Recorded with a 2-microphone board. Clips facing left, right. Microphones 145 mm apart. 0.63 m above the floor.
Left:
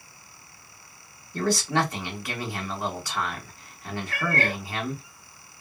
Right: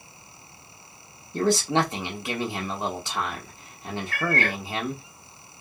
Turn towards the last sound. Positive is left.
turn(degrees=30)  # may be behind; listen again after turning